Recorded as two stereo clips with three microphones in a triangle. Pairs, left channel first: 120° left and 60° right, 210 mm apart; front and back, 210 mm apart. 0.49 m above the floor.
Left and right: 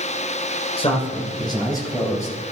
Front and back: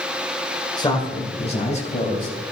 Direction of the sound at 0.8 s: 65° left.